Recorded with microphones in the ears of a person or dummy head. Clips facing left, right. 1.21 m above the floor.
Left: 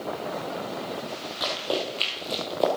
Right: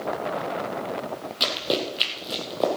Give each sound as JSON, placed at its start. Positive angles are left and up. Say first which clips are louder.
{"t": 1.4, "sound": "running footsteps", "louder": "right 2 dB", "side_deg": -40, "distance_m": 2.5}